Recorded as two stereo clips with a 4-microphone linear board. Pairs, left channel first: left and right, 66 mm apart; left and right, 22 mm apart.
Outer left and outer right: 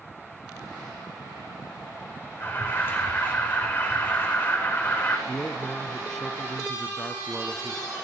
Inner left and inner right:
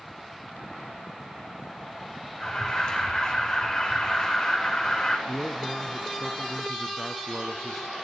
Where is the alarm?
30° left (ahead or behind), 5 m.